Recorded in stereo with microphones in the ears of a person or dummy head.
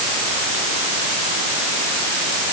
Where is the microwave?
No microwave in this recording.